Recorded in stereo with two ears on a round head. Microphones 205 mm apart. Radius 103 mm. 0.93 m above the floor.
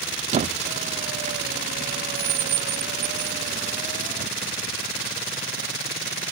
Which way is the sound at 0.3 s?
30° right (ahead or behind).